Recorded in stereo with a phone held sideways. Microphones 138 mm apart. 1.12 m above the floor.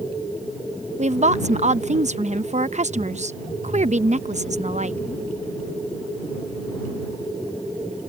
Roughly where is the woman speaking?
Right.